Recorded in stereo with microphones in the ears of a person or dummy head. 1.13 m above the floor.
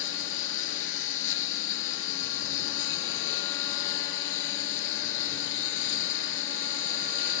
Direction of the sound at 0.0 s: 75° left (ahead or behind).